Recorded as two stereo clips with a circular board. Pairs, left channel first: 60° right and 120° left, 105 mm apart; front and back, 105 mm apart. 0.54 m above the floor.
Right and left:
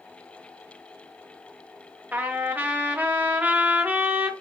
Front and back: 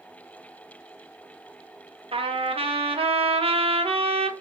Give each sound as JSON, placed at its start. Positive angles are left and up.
{"t": 2.1, "sound": "a trumpet", "azimuth_deg": -165, "distance_m": 0.6}